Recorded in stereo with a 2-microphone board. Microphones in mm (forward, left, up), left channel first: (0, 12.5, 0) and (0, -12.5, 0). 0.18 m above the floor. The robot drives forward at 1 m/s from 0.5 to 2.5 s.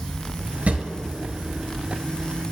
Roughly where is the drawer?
Right.